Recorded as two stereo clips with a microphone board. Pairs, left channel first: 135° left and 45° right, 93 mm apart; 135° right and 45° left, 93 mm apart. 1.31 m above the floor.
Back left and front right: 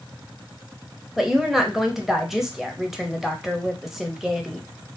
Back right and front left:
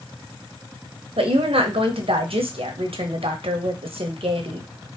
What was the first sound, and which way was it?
A woman speaking, 40° left.